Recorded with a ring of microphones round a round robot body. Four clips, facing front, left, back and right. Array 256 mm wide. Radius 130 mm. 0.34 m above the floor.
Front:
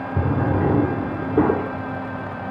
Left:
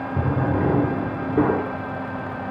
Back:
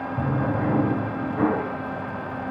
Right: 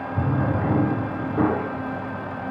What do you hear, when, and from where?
0.2 s a drawer: 30° left, 2.5 m